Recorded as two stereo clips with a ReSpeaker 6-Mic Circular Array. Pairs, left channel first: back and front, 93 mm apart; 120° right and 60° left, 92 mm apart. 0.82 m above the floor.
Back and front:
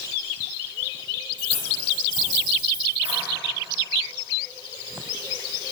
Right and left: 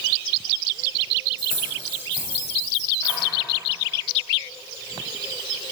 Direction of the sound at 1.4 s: 5° right.